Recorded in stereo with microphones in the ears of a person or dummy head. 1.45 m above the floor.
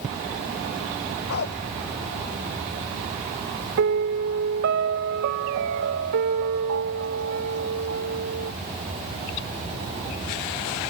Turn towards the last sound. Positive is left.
turn(degrees=-55)  # may be behind; listen again after turning